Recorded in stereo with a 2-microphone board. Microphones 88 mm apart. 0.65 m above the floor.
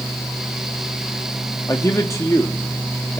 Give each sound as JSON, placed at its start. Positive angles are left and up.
{"t": 1.7, "sound": "a man speaking", "side_deg": 35, "distance_m": 1.3}